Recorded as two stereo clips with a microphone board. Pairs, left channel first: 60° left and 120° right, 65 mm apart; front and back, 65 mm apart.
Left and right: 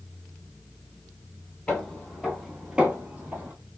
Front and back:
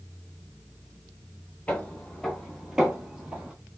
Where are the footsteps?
Straight ahead, 1.3 m; by 3.5 s 140° right, 1.4 m.